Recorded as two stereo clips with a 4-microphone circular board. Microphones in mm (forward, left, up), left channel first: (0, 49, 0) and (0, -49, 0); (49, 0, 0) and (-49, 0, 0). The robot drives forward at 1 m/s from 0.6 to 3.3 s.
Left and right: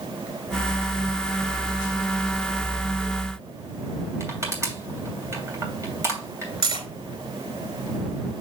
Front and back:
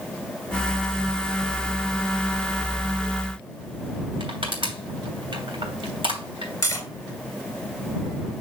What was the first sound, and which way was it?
Crushing, 150° right.